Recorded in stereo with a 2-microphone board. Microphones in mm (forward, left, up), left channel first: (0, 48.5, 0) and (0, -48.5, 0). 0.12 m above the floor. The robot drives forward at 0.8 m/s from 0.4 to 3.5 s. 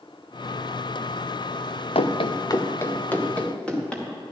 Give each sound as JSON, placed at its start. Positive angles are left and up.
{"t": 1.9, "sound": "running footsteps", "side_deg": 85, "distance_m": 0.8}